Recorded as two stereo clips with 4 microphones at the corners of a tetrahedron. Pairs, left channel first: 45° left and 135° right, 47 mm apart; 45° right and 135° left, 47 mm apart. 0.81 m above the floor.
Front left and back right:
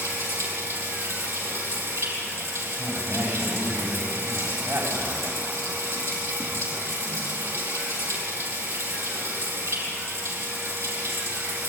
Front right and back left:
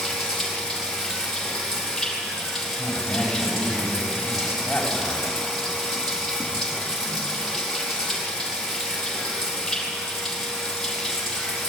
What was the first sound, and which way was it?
Running water, 125° right.